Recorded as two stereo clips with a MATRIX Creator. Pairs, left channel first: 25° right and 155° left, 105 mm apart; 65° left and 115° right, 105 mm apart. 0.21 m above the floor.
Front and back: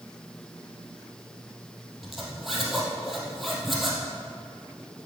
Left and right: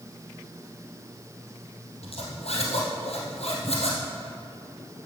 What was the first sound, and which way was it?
A zipper, 70° left.